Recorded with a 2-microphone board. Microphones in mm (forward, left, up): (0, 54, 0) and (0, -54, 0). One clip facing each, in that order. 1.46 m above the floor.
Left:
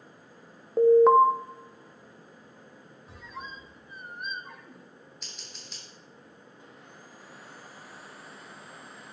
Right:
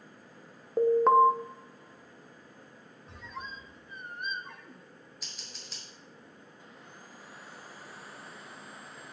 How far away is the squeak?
About 0.6 m.